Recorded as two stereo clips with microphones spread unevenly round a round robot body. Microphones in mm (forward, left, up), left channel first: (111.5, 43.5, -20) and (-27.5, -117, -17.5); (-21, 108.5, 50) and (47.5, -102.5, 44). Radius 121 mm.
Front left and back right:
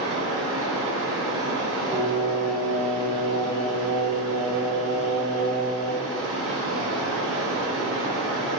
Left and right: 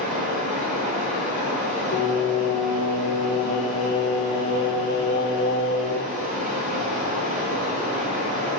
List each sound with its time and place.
0.0 s running water: 125° right, 0.9 m
1.9 s singing: 135° left, 0.6 m